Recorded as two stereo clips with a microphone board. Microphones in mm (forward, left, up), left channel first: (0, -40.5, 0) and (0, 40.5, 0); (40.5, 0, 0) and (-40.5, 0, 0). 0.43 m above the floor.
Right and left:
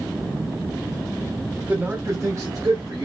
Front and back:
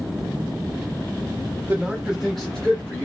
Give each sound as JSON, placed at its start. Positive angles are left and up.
{"t": 1.7, "sound": "a man speaking", "azimuth_deg": 135, "distance_m": 0.9}